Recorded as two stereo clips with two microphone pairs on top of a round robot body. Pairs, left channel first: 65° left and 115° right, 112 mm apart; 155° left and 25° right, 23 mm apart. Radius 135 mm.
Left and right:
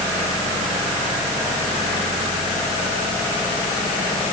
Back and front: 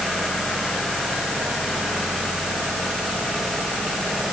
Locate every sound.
Only background noise.